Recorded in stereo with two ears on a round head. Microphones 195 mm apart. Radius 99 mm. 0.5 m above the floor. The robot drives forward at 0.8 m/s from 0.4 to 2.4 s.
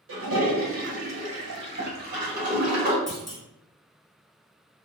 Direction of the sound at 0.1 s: 65° right (ahead or behind).